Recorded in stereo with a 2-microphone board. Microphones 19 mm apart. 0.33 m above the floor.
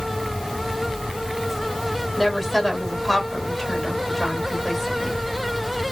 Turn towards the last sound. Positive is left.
turn(degrees=15)  # may be behind; listen again after turning